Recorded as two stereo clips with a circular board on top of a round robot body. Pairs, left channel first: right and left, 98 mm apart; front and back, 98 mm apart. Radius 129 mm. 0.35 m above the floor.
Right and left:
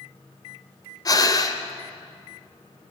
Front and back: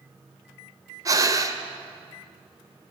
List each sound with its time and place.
1.1 s breathing: 130° right, 1.8 m